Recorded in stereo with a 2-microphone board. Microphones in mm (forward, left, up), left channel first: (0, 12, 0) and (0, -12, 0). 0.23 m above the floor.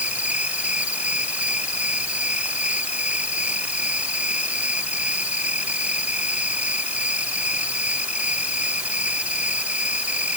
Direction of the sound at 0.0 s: 60° right (ahead or behind).